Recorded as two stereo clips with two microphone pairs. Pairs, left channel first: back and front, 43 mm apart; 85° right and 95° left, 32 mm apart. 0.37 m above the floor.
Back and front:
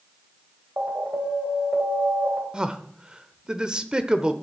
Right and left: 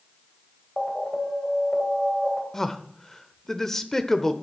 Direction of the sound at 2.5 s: 30° right.